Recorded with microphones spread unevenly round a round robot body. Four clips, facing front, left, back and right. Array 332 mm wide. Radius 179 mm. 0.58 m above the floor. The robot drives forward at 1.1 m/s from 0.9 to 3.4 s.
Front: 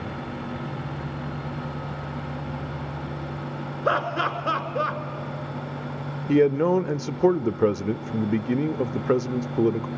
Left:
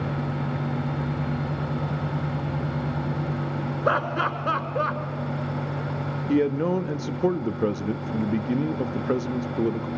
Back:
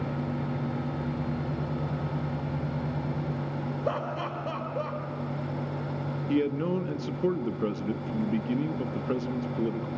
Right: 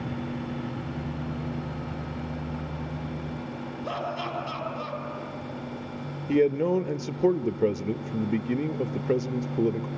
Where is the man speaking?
10° left, 0.6 m.